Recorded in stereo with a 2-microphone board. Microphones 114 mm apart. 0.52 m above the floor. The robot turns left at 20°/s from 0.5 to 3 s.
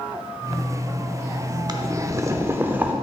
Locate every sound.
1.7 s boiling: 35° right (ahead or behind), 0.6 m; by 2.9 s 15° right (ahead or behind), 0.6 m